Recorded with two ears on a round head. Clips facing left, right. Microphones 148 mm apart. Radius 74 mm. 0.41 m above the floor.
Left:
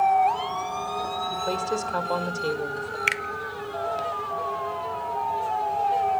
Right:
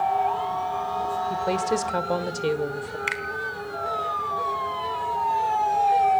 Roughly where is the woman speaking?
Right.